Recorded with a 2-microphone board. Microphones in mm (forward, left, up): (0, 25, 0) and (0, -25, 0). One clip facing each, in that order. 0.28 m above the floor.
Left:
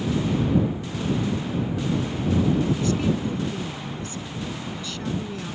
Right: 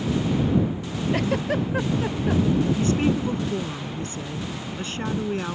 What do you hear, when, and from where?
1.1 s a giggle: 75° right (ahead or behind)
2.8 s a woman speaking: 35° right (ahead or behind)